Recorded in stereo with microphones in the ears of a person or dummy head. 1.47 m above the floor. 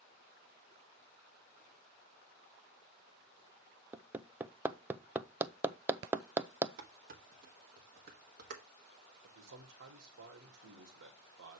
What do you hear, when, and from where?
3.9 s hammering: 10° right (ahead or behind), 0.5 m
6.8 s dishes clattering: 55° right (ahead or behind), 1.2 m
9.2 s a man speaking: 90° right, 1.9 m